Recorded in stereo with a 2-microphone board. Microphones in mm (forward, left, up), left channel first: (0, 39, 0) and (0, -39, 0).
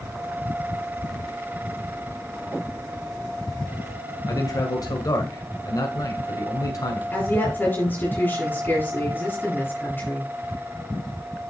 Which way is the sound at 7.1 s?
25° left (ahead or behind).